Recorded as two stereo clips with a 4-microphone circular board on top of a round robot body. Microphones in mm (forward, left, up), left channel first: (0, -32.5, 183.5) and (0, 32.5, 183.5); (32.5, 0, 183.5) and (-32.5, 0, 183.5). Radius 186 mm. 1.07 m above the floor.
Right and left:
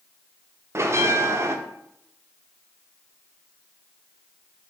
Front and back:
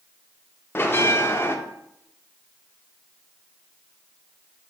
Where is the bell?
50° left, 0.6 m.